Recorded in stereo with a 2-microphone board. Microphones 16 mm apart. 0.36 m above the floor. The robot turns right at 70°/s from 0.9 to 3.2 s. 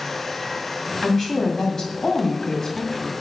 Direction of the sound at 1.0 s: 20° left.